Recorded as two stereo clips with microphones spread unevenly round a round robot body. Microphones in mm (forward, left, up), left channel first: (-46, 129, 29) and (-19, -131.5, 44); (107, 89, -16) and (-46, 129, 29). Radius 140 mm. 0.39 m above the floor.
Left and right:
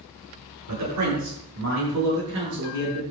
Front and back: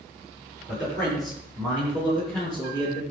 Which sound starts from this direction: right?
A man speaking, at 0.7 s.